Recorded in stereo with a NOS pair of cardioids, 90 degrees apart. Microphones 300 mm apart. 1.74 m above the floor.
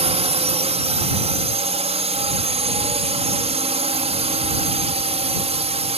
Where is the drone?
20° right.